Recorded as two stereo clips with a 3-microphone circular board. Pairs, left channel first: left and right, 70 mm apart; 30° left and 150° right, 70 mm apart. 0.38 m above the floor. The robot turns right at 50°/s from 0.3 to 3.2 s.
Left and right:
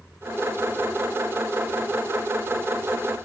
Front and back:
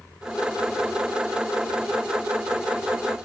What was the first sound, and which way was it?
Only background noise.